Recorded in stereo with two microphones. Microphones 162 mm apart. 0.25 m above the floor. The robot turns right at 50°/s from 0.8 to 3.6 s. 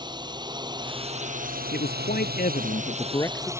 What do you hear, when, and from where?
0.0 s a drone: 25° right (ahead or behind); by 3.6 s 15° right (ahead or behind)
1.7 s a man speaking: 80° left; by 3.5 s 170° left